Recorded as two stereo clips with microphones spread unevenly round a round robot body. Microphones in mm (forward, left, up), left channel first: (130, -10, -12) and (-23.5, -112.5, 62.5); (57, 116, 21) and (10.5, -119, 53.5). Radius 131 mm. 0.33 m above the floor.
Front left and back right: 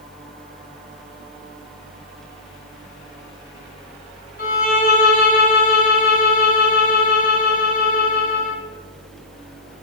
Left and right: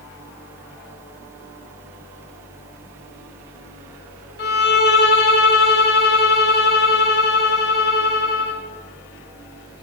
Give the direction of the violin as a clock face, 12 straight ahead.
11 o'clock.